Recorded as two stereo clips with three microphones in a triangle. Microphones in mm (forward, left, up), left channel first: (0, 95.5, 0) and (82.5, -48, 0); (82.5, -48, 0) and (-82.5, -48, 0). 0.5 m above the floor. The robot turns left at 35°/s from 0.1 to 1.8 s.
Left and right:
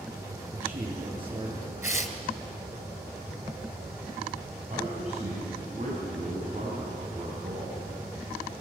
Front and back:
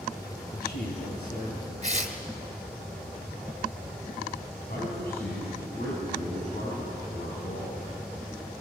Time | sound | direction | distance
0.5 | a man speaking | 25° left | 9.5 m
1.8 | tearing paper | 135° right | 2 m
4.7 | a man speaking | 15° right | 5 m